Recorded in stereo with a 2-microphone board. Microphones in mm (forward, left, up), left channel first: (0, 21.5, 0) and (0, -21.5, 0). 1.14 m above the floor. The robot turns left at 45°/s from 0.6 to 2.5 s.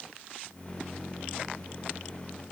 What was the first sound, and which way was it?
Only background noise.